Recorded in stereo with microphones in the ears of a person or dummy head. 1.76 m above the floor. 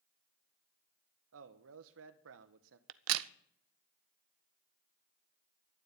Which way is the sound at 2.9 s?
75° right (ahead or behind).